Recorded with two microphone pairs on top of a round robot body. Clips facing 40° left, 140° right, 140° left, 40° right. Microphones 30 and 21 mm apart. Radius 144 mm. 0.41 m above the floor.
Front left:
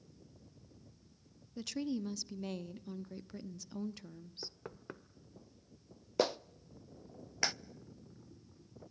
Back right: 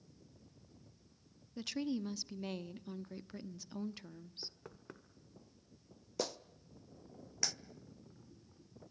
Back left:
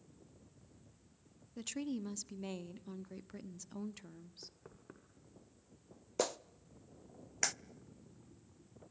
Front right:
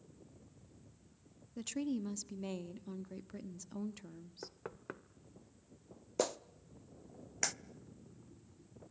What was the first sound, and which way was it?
A woman speaking, 125° right.